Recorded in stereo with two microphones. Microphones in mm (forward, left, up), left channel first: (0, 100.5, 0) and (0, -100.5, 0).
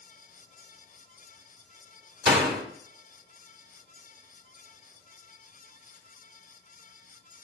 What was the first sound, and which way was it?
A door slam, 60° right (ahead or behind).